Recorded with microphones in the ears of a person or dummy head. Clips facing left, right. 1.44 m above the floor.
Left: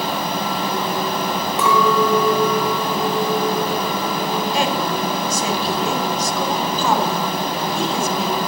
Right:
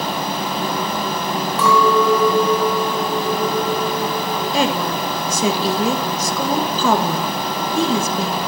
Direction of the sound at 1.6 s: 15° left (ahead or behind).